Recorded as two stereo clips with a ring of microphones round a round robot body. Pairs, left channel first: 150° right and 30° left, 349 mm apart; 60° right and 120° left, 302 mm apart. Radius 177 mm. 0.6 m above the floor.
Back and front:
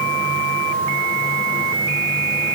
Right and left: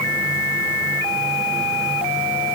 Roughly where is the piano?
No piano in this recording.